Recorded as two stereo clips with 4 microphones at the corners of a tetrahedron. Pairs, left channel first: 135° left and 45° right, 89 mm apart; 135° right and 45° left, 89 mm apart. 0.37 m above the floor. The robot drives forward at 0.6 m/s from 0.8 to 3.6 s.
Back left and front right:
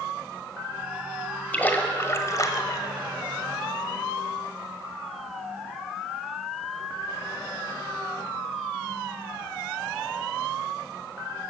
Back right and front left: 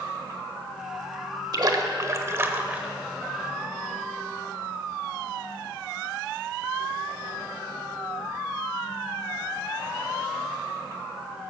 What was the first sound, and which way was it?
A splash, 70° left.